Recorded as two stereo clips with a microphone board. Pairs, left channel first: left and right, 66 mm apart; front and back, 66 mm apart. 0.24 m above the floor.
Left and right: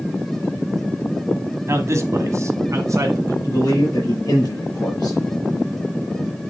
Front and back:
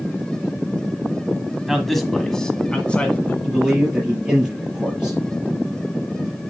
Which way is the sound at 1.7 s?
95° right.